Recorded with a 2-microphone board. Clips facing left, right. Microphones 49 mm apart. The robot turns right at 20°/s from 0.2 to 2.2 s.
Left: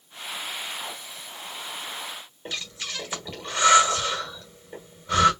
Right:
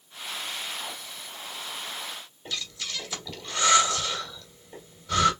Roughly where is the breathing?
Left.